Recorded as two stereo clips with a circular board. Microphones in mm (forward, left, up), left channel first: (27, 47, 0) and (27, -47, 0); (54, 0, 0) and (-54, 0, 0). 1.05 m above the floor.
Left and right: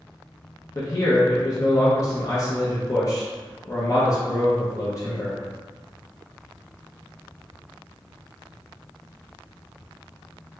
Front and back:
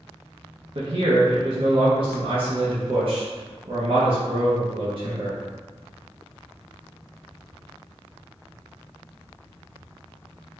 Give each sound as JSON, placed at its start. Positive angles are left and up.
{"t": 0.8, "sound": "a man speaking", "azimuth_deg": 145, "distance_m": 0.7}